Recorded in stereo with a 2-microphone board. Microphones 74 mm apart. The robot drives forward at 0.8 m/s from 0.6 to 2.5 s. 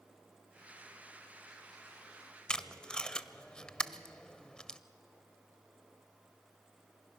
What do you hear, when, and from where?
2.5 s tape being pulled: 10° left (ahead or behind), 0.5 m